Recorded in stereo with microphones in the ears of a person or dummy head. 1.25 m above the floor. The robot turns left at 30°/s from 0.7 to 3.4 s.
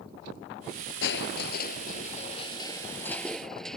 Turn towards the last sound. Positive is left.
turn(degrees=0)